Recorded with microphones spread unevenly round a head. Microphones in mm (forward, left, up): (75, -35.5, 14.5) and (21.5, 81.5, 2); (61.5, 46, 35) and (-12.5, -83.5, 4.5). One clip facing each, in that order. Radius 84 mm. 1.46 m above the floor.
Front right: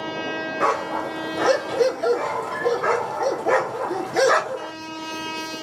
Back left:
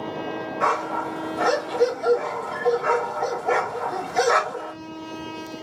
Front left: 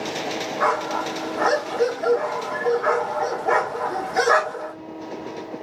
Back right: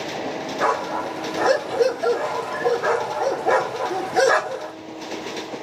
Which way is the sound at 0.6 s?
60° right.